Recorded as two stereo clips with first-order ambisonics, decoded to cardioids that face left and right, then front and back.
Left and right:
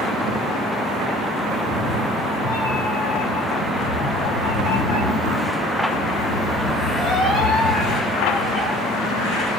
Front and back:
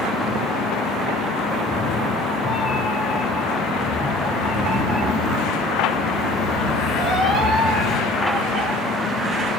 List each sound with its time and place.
1.5 s a cat meowing: 60° left, 2.5 m; by 8.7 s 160° left, 3 m